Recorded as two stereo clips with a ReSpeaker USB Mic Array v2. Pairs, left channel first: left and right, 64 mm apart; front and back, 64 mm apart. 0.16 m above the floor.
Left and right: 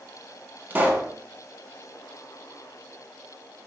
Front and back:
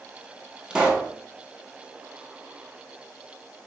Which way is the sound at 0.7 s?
120° right.